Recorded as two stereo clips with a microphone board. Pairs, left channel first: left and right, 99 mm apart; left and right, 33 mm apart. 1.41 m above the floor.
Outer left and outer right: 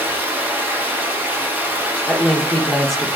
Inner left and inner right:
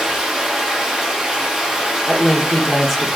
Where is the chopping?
No chopping in this recording.